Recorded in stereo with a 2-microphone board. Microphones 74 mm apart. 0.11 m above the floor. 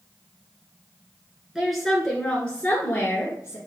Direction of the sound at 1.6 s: 5° right (ahead or behind).